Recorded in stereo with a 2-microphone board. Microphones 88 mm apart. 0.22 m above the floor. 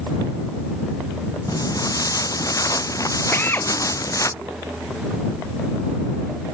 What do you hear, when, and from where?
1.5 s footsteps: 40° left (ahead or behind); by 4.3 s 35° left (ahead or behind)
3.3 s a drill: 25° left (ahead or behind)